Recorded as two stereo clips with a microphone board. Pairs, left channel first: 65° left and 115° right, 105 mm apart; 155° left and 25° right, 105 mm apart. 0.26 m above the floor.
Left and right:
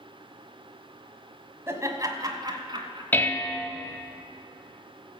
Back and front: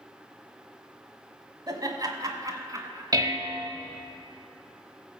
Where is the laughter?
60° right, 1.3 m; by 3.0 s 80° right, 2 m.